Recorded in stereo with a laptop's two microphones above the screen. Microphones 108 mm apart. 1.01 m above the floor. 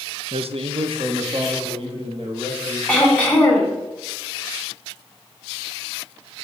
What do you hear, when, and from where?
0.3 s a man speaking: 65° right (ahead or behind), 0.6 m; by 2.8 s 50° right (ahead or behind), 2.5 m
2.9 s throat clearing: 10° left (ahead or behind), 4 m